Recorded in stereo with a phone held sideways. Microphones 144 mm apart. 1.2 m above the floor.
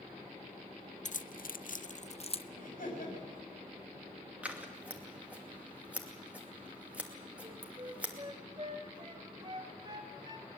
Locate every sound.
1.1 s keys jangling: 60° left (ahead or behind), 0.5 m; by 2.4 s 40° left (ahead or behind), 0.8 m
2.6 s laughter: 75° left (ahead or behind), 7 m
4.4 s scissors: 10° right (ahead or behind), 2.5 m
7.4 s a flute: 35° right (ahead or behind), 2.5 m